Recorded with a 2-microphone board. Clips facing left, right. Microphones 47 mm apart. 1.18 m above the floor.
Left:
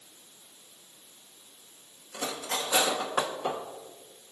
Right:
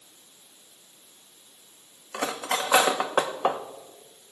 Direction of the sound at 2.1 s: 60° right (ahead or behind).